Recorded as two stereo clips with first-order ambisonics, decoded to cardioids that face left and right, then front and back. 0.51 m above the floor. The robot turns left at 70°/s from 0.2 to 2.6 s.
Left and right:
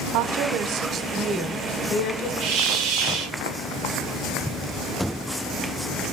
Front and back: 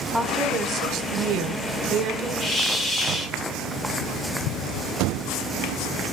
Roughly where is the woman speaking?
Right.